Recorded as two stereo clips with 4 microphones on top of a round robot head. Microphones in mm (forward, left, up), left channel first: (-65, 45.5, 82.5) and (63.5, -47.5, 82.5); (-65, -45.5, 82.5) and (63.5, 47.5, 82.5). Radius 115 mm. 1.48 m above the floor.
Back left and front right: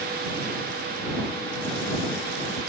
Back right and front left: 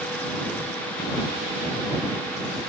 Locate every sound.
Only background noise.